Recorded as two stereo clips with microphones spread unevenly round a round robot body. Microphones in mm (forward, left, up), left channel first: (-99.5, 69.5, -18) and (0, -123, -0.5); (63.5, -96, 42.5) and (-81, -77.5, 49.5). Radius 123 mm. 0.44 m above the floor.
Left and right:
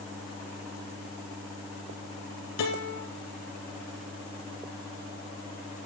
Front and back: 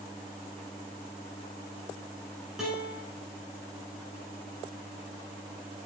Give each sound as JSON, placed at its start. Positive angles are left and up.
{"t": 2.6, "sound": "a guitar", "azimuth_deg": 85, "distance_m": 1.9}